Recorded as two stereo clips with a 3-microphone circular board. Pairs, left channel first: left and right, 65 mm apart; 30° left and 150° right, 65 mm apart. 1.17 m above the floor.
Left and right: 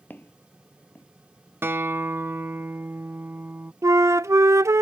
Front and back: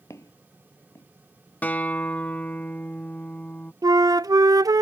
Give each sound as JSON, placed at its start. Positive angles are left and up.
{"t": 0.1, "sound": "footsteps", "azimuth_deg": 40}
{"t": 1.6, "sound": "a guitar", "azimuth_deg": -35}
{"t": 3.8, "sound": "a flute", "azimuth_deg": -130}